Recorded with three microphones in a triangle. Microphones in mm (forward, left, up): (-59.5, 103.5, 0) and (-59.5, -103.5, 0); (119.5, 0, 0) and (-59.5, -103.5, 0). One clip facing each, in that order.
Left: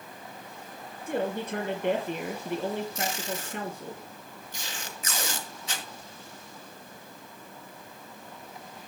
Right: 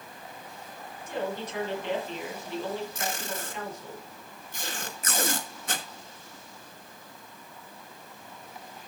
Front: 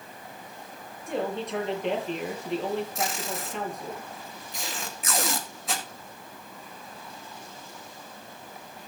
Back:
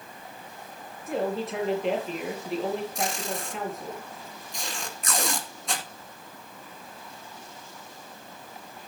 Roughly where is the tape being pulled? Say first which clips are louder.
Left 2 dB, back 1 dB; ahead right.